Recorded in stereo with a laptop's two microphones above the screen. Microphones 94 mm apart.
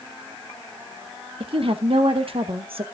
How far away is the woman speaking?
About 0.9 m.